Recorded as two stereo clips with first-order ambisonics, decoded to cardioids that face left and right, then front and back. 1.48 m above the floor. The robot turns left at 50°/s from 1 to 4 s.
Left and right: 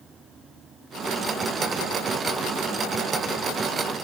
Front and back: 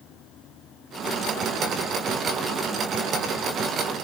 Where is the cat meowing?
I don't hear a cat meowing.